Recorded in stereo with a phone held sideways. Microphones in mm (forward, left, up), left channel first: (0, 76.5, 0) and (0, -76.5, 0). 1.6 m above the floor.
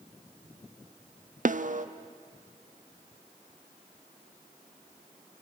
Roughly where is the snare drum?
Right.